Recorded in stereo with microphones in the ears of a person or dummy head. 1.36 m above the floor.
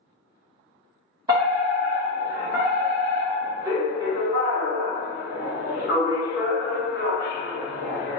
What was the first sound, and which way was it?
A fire alarm, 15° right (ahead or behind).